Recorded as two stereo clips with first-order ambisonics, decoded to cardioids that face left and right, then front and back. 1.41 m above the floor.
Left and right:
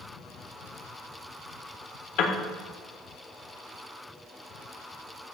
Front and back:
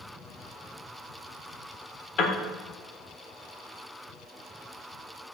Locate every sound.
2.2 s a piano: 55° left, 1.6 m